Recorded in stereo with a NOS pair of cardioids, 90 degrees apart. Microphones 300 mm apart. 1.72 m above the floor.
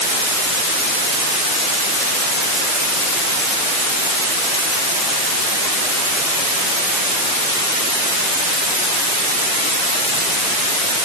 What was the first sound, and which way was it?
Only background noise.